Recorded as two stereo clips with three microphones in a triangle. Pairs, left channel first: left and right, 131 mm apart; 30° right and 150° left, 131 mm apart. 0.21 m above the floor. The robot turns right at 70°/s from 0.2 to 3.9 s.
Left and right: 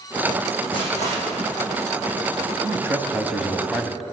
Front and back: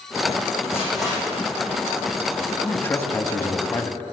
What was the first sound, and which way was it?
Crushing, 40° left.